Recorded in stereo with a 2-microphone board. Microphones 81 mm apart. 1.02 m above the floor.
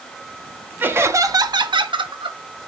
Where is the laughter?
25° right (ahead or behind), 1.6 m; by 2.4 s 65° right (ahead or behind), 1.7 m.